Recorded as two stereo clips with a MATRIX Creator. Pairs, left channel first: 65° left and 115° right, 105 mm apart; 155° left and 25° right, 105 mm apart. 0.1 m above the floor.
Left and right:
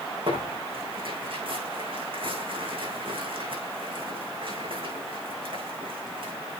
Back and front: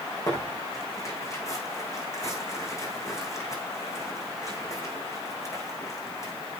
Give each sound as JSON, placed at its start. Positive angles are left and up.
{"t": 0.3, "sound": "tearing paper", "azimuth_deg": -145, "distance_m": 5.0}